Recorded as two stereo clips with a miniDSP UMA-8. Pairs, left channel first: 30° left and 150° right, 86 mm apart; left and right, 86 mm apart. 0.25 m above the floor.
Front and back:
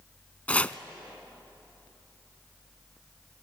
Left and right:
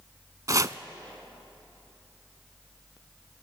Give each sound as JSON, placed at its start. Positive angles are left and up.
{"t": 0.5, "sound": "chopping", "azimuth_deg": -45, "distance_m": 0.5}